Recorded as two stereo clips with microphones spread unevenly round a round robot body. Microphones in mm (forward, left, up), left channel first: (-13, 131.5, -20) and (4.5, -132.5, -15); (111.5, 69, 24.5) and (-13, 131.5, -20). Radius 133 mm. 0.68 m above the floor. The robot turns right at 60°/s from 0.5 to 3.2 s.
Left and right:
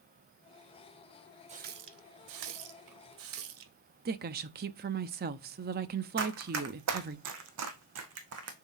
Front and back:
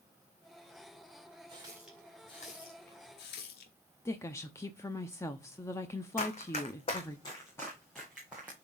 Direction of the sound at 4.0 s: 115° right.